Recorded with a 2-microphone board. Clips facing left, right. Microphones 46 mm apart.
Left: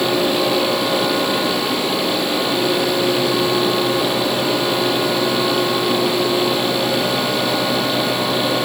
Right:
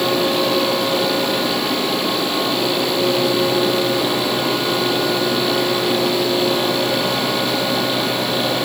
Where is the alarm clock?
I don't hear an alarm clock.